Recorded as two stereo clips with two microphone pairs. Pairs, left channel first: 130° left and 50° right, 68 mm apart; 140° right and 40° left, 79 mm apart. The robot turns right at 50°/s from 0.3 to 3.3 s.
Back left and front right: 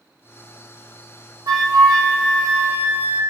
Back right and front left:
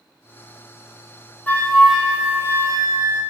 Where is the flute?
65° right, 0.8 m; by 3.2 s 20° left, 0.8 m.